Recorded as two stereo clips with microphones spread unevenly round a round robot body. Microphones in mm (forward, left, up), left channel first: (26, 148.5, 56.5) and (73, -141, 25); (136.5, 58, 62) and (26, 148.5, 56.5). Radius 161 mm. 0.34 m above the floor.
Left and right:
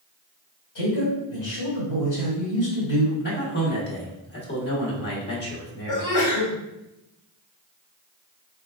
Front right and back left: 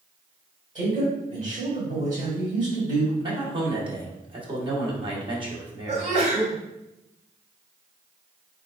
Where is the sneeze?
110° left, 1.6 m.